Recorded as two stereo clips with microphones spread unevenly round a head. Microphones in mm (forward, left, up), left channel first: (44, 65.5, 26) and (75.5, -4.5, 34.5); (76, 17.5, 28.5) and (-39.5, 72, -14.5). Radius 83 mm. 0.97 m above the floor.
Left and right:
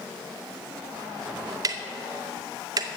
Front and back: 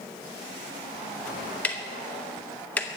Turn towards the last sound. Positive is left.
turn(degrees=-115)